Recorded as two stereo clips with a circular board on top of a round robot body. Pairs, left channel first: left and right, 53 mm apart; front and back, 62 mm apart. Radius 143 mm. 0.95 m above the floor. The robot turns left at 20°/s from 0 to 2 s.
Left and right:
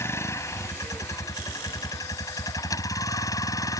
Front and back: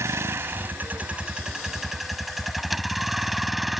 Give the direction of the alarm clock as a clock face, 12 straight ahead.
No alarm clock in this recording.